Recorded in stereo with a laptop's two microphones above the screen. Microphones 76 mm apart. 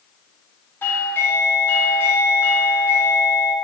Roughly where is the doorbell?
Left.